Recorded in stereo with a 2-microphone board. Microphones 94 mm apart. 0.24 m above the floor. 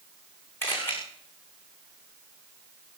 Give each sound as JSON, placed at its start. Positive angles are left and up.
{"t": 0.6, "sound": "a camera shutter", "side_deg": 25, "distance_m": 7.5}